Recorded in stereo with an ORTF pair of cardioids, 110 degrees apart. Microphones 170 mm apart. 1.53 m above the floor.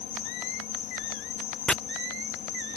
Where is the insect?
60° left.